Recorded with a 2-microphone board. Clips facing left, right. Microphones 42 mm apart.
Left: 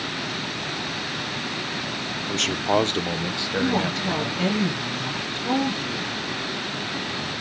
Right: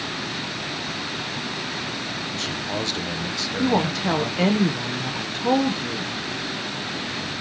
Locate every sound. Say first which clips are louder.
2.3 s a man speaking: left 10 dB; 65° left (ahead or behind), 0.7 m; by 4.5 s centre (ahead or behind), 1.8 m
3.6 s a woman speaking: right 3 dB; 90° right, 1.1 m